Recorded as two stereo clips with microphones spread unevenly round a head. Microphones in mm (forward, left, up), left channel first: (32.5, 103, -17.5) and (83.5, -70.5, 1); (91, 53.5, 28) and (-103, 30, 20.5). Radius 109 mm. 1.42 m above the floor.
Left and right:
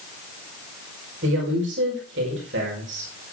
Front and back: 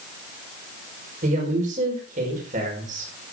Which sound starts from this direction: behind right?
A woman speaking, at 1.2 s.